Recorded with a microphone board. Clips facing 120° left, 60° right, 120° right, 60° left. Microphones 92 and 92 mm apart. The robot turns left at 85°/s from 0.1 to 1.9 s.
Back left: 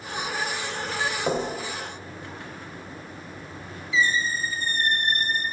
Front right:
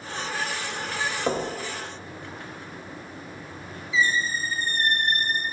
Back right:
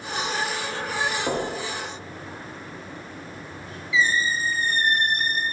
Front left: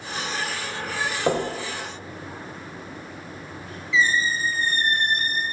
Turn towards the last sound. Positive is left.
turn(degrees=-50)